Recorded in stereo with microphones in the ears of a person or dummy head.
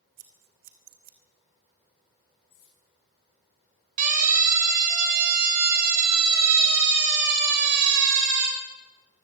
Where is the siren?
45° right (ahead or behind), 5.5 m; by 8.5 s 70° right (ahead or behind), 5.5 m.